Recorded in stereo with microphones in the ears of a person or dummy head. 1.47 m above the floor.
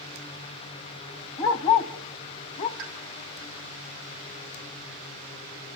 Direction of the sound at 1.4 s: 20° left (ahead or behind).